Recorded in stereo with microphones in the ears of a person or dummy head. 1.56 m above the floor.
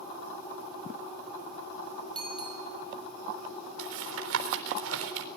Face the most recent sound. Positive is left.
turn(degrees=-80)